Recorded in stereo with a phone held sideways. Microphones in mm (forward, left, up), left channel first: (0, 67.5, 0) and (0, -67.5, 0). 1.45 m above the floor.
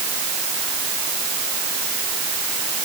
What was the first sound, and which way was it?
Only background noise.